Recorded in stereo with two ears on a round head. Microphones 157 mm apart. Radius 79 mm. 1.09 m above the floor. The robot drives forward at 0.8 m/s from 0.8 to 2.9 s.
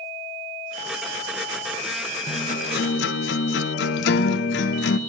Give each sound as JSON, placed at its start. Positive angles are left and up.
{"t": 2.3, "sound": "a guitar", "side_deg": 35, "distance_m": 0.8}